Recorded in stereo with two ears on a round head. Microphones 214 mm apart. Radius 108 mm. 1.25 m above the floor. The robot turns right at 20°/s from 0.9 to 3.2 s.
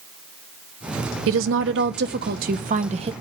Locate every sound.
1.3 s a woman speaking: 60° right, 0.9 m; by 3.1 s 25° right, 0.9 m